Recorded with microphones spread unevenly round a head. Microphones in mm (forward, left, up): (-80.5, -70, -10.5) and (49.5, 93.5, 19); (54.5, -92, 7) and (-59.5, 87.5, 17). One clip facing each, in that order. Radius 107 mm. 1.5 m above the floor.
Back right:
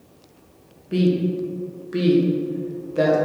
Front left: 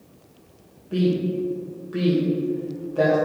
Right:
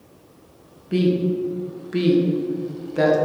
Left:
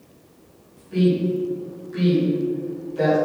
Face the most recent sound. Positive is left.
turn(degrees=-65)